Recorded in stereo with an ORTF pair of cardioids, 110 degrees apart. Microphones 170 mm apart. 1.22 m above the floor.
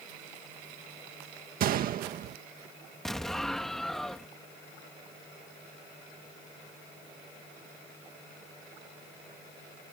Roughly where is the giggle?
I don't hear a giggle.